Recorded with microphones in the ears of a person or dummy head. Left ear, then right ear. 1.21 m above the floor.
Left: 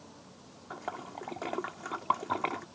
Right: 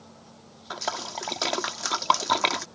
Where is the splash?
75° right (ahead or behind).